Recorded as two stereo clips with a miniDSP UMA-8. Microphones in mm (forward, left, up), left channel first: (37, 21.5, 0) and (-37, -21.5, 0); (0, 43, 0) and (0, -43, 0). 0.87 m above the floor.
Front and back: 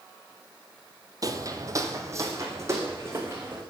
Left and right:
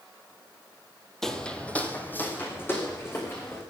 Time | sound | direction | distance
1.2 | footsteps | 175° left | 1.5 m